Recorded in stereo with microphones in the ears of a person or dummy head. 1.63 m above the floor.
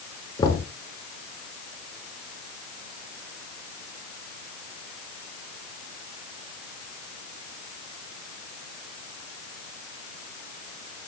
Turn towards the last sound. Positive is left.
turn(degrees=30)  # may be behind; listen again after turning